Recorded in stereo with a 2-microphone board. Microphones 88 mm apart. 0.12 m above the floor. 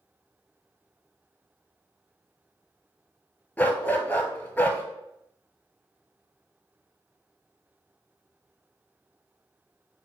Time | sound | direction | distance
3.6 | a dog barking | 15° left (ahead or behind) | 0.7 m